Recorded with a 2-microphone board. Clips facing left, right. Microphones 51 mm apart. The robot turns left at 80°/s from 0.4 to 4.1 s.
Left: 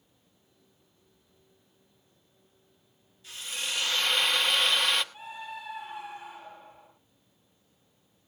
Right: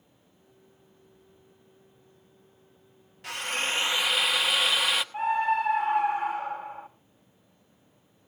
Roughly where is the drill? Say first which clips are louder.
Right 6 dB; right.